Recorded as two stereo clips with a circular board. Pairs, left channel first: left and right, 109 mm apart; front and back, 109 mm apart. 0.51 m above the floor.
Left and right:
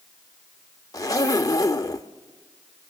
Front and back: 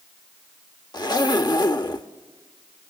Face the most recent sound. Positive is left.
turn(degrees=40)